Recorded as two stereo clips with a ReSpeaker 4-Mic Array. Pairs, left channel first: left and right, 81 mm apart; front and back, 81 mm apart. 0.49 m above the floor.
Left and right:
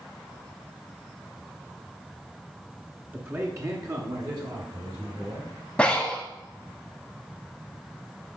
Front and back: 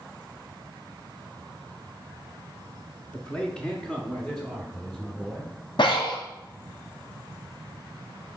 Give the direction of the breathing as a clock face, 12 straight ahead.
12 o'clock.